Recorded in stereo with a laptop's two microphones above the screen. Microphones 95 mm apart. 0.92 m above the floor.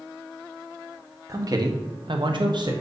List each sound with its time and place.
1.3 s a man speaking: 35° right (ahead or behind), 1.2 m; by 2.7 s 45° right (ahead or behind), 0.9 m